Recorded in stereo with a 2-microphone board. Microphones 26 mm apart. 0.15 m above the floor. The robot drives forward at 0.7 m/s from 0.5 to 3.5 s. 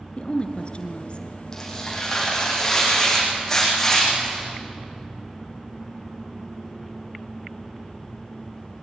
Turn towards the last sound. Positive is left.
turn(degrees=15)  # may be behind; listen again after turning